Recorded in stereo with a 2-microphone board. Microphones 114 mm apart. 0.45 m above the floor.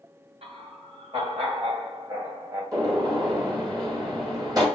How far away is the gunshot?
About 1.3 m.